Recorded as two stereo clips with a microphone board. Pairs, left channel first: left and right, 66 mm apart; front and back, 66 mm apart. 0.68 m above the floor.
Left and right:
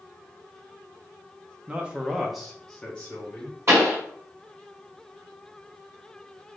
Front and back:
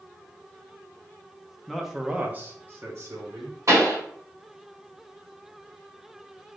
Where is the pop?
140° right, 1.8 m.